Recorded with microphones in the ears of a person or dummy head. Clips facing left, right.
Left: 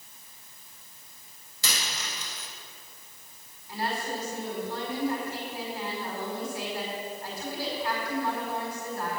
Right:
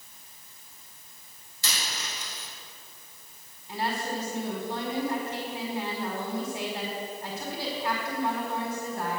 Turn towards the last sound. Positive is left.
turn(degrees=-25)  # may be behind; listen again after turning